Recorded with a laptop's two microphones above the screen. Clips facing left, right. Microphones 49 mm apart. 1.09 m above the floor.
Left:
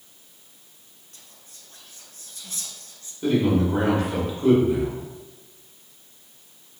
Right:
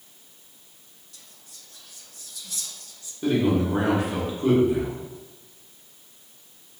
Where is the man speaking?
10° right (ahead or behind), 1.0 m.